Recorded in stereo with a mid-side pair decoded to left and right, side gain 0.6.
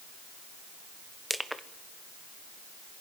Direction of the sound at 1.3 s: 5° right.